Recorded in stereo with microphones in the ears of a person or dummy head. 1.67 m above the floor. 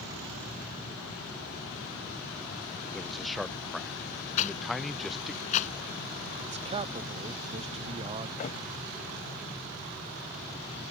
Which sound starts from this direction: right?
A man speaking, at 6.4 s.